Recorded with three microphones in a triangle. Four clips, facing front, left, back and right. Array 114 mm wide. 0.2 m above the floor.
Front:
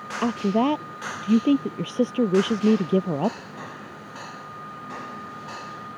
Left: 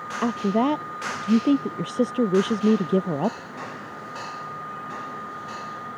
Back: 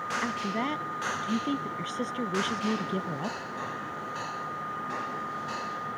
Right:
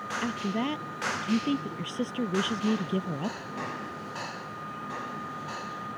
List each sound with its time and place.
0.2 s a woman speaking: 40° left